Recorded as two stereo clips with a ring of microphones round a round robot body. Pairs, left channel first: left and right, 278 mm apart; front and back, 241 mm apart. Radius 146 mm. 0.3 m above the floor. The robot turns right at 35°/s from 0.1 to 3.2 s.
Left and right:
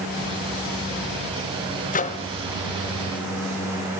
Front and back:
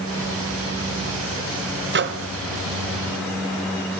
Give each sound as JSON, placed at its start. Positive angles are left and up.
{"t": 1.9, "sound": "a microwave", "azimuth_deg": 145, "distance_m": 1.2}